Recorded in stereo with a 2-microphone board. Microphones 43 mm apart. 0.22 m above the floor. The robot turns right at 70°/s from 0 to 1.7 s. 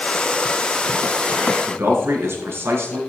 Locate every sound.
1.7 s a man speaking: 65° right (ahead or behind), 3 m